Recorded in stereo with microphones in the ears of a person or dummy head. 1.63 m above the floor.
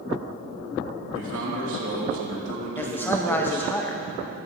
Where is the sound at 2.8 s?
10° left (ahead or behind), 0.8 m.